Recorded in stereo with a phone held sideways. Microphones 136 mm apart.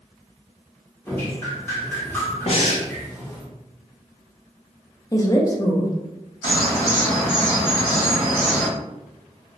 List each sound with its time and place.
1.1 s dripping: 15° left (ahead or behind), 0.9 m
2.5 s breathing: 50° left (ahead or behind), 0.6 m
5.1 s a woman speaking: 25° left (ahead or behind), 0.5 m
6.4 s a bird: 35° left (ahead or behind), 1.8 m